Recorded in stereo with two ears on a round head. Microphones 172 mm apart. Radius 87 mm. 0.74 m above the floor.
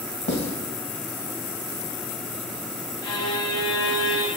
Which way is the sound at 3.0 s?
25° left (ahead or behind).